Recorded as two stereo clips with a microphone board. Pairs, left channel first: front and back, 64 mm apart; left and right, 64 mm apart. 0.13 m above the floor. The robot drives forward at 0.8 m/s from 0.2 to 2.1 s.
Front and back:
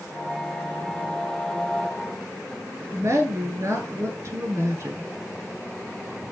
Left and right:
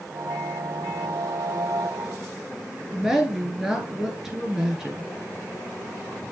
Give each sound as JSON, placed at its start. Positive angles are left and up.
{"t": 2.9, "sound": "a woman speaking", "azimuth_deg": -170, "distance_m": 1.9}